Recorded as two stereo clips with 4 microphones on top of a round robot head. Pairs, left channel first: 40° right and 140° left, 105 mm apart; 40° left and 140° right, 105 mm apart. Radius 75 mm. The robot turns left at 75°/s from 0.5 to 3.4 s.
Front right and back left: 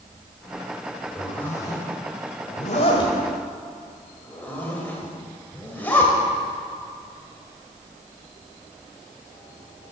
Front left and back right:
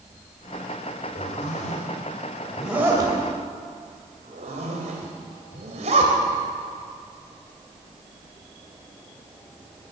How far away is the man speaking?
No man speaking in this recording.